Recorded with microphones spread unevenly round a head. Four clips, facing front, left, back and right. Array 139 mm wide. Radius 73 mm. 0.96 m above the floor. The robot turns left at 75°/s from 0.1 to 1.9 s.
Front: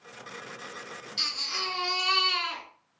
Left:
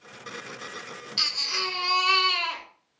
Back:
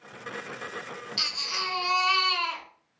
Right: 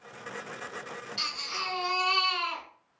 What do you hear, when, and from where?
1.2 s a baby crying: 145° left, 1.5 m; by 2.6 s 90° left, 1.5 m